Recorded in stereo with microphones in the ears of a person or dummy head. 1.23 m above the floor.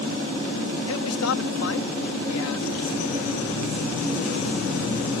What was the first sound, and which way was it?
A man speaking, 70° left (ahead or behind).